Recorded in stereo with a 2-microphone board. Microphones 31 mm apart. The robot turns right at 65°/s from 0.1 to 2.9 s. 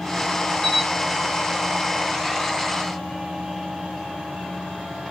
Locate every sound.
0.6 s a camera shutter: 5° left (ahead or behind), 2.5 m; by 0.9 s 20° left (ahead or behind), 2.5 m